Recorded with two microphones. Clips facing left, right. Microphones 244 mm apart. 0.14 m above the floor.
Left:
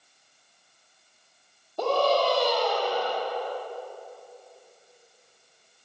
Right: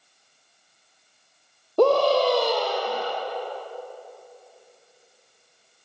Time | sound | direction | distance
1.8 | a scream | 65° right (ahead or behind) | 3.5 m